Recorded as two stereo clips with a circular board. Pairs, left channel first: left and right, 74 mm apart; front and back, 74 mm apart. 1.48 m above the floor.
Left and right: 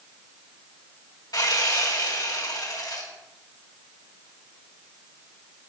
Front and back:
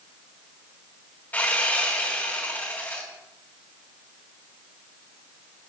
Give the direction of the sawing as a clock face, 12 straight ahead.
10 o'clock.